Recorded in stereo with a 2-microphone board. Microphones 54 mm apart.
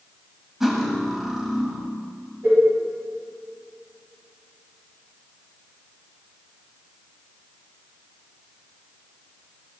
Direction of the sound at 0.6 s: 5° right (ahead or behind).